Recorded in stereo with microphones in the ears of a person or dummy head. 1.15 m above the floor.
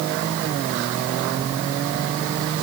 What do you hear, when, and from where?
Only background noise.